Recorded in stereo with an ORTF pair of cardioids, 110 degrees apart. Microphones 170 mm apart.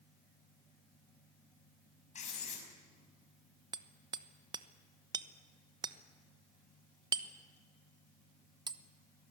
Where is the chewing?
No chewing in this recording.